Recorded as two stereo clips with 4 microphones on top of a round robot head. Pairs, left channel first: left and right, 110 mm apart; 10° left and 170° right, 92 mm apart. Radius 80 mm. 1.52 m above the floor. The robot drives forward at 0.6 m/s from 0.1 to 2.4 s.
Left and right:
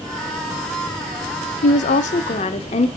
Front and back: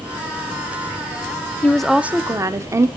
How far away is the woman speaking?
About 0.5 m.